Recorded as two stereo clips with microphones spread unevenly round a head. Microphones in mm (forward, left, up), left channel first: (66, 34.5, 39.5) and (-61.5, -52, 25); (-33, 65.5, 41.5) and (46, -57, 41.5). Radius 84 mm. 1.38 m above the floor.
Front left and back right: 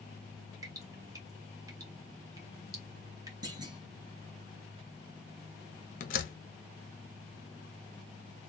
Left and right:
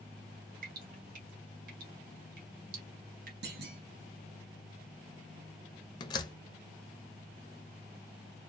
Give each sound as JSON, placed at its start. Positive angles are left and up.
{"t": 0.6, "sound": "dripping", "azimuth_deg": -80, "distance_m": 1.3}
{"t": 3.4, "sound": "a clunk", "azimuth_deg": -80, "distance_m": 1.7}
{"t": 6.0, "sound": "a door slam", "azimuth_deg": 65, "distance_m": 0.7}